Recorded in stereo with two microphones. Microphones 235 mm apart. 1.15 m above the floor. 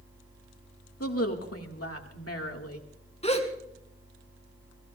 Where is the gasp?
25° left (ahead or behind), 1.8 m.